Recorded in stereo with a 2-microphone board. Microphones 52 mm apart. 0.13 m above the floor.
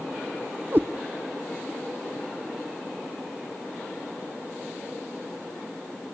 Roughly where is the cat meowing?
Right.